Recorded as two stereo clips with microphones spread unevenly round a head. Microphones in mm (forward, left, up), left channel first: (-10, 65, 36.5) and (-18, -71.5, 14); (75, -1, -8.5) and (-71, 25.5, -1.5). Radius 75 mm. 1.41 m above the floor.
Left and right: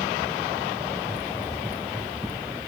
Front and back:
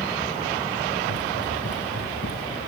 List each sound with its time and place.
1.0 s running footsteps: 15° right; by 2.6 s 10° right